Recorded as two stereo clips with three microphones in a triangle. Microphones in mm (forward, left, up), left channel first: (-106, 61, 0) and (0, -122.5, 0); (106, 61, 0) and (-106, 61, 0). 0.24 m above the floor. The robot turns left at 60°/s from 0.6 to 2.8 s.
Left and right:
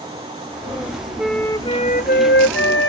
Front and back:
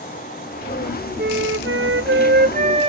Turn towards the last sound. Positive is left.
turn(degrees=120)